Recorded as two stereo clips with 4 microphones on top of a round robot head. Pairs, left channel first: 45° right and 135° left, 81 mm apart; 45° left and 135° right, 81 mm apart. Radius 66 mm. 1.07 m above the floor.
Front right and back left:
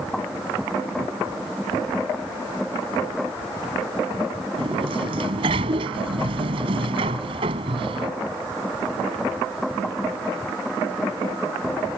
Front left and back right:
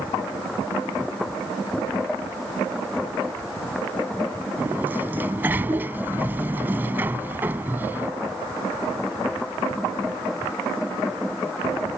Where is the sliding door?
155° left.